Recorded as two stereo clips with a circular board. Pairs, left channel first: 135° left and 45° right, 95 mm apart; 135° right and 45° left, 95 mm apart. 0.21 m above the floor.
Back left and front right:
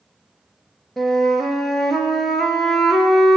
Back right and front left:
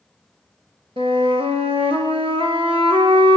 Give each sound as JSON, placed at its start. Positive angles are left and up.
{"t": 1.0, "sound": "a flute", "azimuth_deg": 50, "distance_m": 1.2}